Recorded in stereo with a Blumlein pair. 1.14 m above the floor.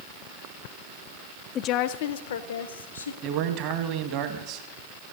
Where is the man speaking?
40° right, 1.6 m.